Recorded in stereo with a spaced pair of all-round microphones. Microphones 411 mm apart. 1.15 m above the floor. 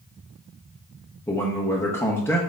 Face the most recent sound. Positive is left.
turn(degrees=5)  # may be behind; listen again after turning